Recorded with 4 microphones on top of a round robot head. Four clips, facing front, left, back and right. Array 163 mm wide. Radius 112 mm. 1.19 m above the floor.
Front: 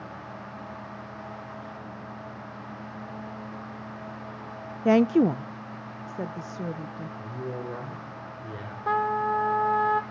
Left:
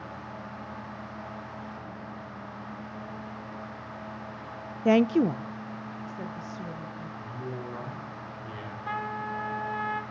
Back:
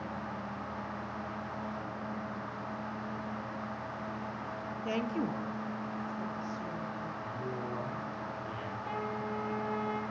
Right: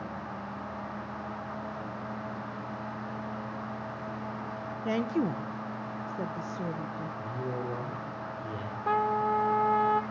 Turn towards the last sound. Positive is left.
turn(degrees=-40)